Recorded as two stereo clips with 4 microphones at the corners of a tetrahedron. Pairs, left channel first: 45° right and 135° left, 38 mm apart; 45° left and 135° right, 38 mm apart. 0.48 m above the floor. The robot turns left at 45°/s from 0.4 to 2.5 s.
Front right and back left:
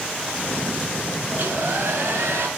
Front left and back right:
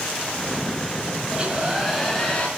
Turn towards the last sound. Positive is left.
turn(degrees=105)